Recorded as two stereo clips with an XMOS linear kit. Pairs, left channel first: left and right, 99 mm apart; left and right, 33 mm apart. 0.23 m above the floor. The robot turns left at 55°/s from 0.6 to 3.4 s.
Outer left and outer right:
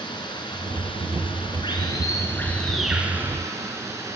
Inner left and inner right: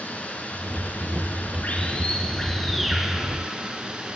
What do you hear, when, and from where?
0.0 s running water: 120° left, 1.8 m; by 4.2 s 35° right, 1.8 m